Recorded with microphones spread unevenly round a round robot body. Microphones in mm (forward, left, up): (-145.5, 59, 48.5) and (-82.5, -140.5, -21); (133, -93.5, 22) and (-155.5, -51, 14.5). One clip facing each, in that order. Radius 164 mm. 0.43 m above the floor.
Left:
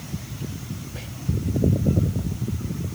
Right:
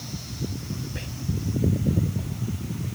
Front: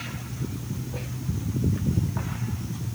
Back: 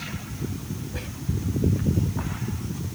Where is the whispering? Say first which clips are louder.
Right 2 dB, back 1 dB; 130° right.